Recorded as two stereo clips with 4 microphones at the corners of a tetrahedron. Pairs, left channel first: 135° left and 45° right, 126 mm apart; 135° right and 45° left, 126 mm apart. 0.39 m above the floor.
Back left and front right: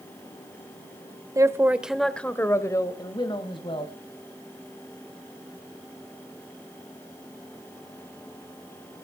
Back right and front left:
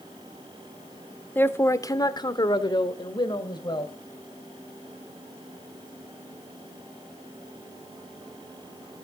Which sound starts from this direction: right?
A man speaking, at 1.4 s.